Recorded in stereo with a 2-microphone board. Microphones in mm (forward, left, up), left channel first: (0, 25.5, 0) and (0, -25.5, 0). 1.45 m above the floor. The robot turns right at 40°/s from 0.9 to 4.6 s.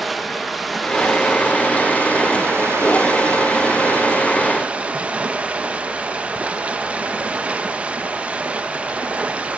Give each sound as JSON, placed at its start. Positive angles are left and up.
{"t": 0.0, "sound": "running water", "azimuth_deg": 180, "distance_m": 1.0}